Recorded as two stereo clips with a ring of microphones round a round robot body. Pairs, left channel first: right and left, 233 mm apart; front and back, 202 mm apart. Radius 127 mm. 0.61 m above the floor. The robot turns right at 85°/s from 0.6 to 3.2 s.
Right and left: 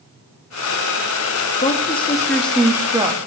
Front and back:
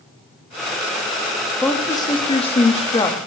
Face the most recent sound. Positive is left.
turn(degrees=55)